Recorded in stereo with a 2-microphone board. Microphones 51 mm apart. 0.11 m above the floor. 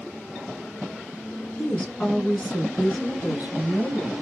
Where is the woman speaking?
25° left (ahead or behind), 1.2 m; by 4.1 s 30° right (ahead or behind), 1.5 m.